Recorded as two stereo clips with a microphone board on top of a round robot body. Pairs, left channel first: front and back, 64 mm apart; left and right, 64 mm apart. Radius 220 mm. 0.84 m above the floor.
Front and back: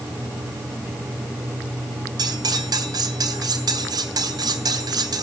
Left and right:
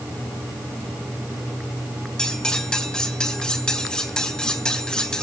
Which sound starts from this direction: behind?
Cutlery clinking, at 2.2 s.